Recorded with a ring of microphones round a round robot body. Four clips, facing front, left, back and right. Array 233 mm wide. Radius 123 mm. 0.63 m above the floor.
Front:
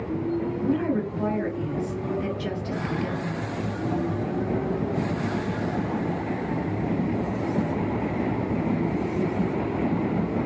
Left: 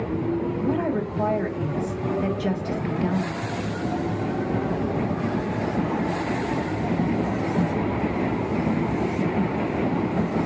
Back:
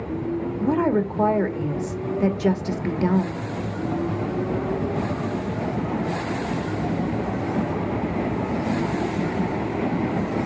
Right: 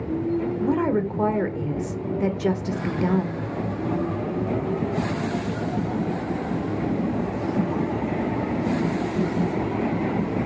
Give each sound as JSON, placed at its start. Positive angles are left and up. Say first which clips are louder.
{"t": 0.6, "sound": "a woman speaking", "louder": "right 2 dB, back 6 dB", "azimuth_deg": -150, "distance_m": 1.8}